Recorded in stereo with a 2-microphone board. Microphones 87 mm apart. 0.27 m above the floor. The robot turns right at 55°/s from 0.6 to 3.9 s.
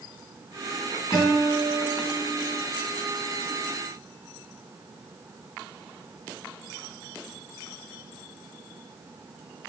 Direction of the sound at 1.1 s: 115° left.